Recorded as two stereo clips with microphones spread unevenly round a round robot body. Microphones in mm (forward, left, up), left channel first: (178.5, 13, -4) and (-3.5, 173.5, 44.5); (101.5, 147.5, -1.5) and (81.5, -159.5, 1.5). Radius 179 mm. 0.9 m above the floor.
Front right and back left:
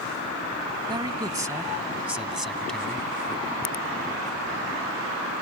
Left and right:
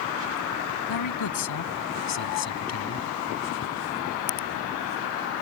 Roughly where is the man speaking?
Left.